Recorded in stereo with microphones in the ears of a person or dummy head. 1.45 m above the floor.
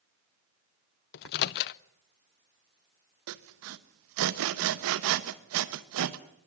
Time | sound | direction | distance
1.1 | a microwave | 55° left (ahead or behind) | 0.6 m
3.3 | sawing | 70° right (ahead or behind) | 1.2 m